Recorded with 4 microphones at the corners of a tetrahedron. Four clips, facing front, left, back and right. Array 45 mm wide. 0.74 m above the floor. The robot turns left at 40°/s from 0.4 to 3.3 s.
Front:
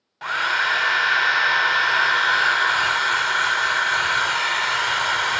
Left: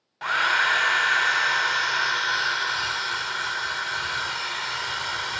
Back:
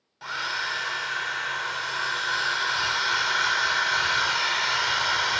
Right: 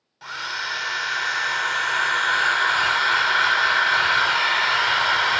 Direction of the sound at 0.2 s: 50° left.